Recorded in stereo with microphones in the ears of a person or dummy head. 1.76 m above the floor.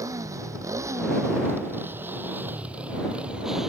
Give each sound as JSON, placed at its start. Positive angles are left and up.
{"t": 0.0, "sound": "a motorcycle", "side_deg": -20}